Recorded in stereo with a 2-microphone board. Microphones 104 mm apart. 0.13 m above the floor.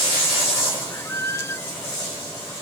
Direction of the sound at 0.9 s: 25° left (ahead or behind).